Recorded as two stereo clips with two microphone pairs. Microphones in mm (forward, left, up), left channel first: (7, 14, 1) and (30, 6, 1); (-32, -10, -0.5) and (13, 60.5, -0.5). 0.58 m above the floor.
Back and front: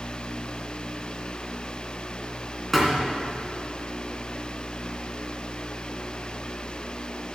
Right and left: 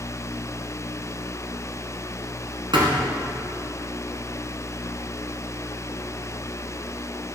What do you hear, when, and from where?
2.7 s a thud: 80° left, 2.5 m